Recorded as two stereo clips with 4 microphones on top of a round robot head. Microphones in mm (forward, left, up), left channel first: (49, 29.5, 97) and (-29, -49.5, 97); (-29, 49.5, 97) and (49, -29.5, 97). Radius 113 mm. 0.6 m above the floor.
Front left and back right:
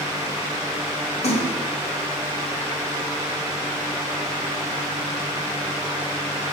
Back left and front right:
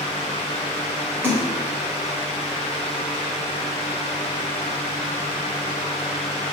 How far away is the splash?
About 3 m.